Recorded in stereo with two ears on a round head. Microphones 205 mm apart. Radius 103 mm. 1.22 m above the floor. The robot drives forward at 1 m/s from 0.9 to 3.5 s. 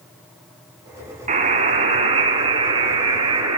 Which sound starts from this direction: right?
A buzzer, at 1.3 s.